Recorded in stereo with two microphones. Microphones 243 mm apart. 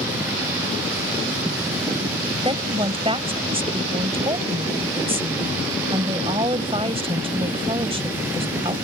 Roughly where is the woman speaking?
Right.